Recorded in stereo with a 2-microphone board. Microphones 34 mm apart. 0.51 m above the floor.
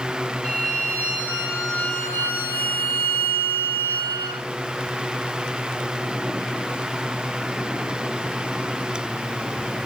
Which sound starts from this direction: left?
A violin, at 0.4 s.